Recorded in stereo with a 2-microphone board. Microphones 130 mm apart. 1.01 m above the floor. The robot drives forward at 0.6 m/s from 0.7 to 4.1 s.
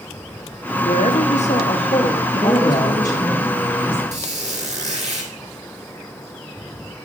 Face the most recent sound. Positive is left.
turn(degrees=-60)  # may be behind; listen again after turning